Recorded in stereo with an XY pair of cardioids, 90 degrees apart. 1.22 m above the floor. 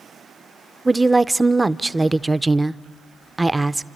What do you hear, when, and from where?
0.8 s a woman speaking: 15° right, 0.5 m